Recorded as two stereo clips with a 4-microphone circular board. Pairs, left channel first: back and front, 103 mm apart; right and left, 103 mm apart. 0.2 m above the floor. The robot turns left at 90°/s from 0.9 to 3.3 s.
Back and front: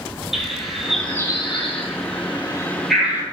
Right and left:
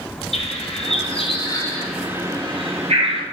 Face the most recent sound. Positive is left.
turn(degrees=55)